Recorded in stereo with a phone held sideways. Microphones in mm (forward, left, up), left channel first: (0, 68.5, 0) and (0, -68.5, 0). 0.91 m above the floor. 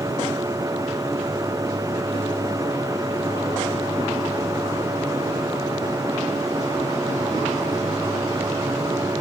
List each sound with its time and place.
0.0 s a machine running: 25° right (ahead or behind)